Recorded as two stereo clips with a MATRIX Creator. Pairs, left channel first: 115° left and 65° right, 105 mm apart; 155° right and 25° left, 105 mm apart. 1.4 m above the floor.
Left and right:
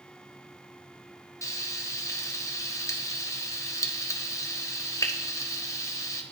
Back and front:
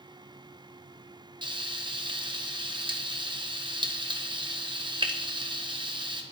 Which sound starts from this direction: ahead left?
Frying, at 1.4 s.